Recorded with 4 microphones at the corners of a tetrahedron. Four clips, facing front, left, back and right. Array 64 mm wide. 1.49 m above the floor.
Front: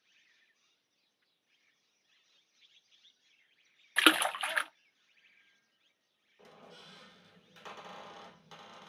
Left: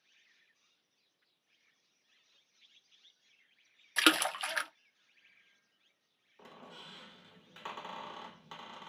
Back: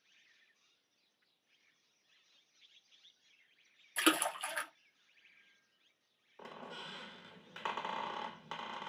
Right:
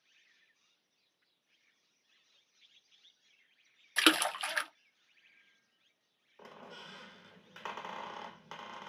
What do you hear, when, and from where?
4.0 s a splash: 5° left, 0.5 m
6.4 s a squeak: 155° right, 1.0 m